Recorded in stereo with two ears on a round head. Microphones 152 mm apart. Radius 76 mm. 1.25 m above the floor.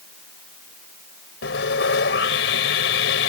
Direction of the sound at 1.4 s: 80° left.